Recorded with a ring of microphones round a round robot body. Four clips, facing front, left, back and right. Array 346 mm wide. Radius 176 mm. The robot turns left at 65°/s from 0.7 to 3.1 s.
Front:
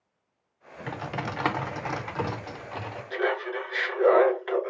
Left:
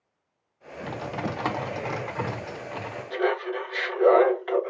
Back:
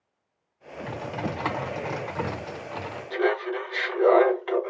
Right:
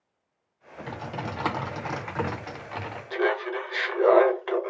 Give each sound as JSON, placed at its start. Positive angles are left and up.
{"t": 0.9, "sound": "typing on a keyboard", "azimuth_deg": 25, "distance_m": 0.6}
{"t": 3.1, "sound": "laughter", "azimuth_deg": -90, "distance_m": 1.7}